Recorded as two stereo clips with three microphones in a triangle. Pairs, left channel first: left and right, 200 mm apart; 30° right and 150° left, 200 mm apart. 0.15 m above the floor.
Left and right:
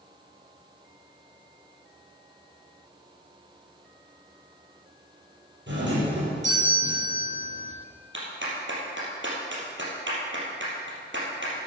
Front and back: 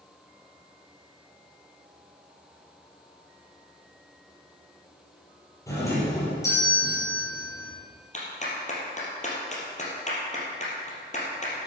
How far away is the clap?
About 3.5 m.